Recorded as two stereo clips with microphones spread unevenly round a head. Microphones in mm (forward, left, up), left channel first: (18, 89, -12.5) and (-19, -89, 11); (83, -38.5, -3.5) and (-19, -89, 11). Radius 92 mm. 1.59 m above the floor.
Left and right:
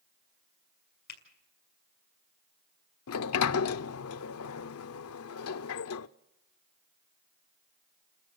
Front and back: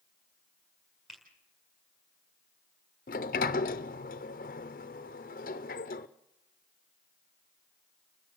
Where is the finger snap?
115° left, 5 m.